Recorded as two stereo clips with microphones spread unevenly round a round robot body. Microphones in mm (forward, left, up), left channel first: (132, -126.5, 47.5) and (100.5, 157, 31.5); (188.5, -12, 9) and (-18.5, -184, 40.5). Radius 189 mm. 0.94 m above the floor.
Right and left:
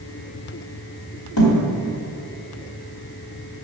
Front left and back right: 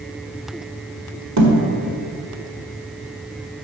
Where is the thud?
120° right, 1.9 m.